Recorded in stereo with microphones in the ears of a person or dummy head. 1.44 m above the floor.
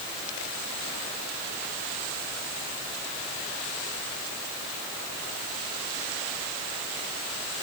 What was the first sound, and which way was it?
Only background noise.